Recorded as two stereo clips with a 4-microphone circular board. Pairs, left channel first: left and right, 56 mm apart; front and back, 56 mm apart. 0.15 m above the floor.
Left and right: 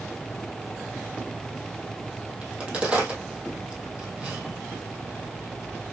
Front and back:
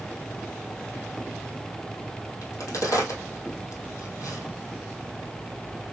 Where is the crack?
20° right, 1.9 m.